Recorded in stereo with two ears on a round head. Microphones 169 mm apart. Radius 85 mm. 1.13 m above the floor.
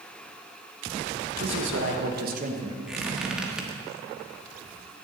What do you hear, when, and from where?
1.4 s a man speaking: 70° right (ahead or behind), 1.9 m; by 2.8 s 20° right (ahead or behind), 1.2 m
2.9 s a squeak: 5° right (ahead or behind), 1.5 m